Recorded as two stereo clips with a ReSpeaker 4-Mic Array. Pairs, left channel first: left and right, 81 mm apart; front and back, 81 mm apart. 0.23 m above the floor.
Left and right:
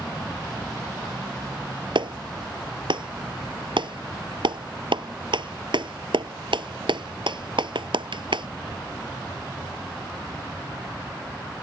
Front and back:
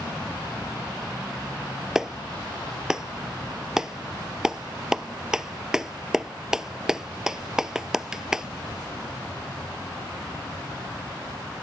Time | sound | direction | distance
1.9 | a clap | 100° right | ?